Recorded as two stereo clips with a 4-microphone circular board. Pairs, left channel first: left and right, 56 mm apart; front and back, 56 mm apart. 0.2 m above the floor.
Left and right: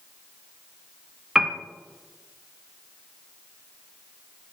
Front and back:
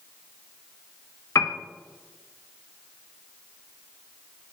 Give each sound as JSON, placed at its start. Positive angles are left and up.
{"t": 1.4, "sound": "a piano", "azimuth_deg": -10, "distance_m": 0.6}